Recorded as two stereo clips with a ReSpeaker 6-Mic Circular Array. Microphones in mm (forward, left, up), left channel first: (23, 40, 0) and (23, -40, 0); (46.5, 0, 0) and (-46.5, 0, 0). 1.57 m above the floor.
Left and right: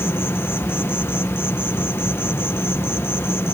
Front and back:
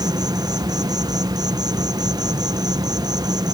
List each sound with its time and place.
0.0 s an insect: 145° left